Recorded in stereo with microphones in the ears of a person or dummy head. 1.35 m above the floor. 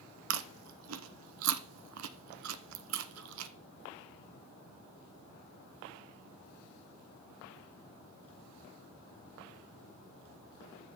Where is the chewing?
75° right (ahead or behind), 0.9 m.